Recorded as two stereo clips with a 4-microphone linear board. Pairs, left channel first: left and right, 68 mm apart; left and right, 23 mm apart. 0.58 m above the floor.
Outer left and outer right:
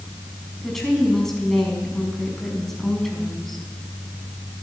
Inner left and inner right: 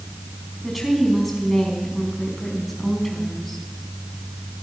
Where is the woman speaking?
5° left (ahead or behind), 4.5 m.